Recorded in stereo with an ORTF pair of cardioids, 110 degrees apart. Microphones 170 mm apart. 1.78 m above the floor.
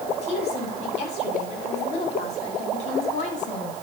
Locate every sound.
0.2 s a woman speaking: 40° left, 7 m; by 3.7 s 45° left, 4.5 m